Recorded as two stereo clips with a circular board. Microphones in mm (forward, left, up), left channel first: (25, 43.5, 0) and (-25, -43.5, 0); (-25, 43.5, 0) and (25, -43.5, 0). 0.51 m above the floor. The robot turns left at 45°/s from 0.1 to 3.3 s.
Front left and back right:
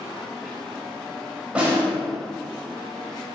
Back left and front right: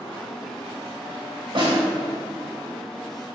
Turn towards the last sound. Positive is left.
turn(degrees=-120)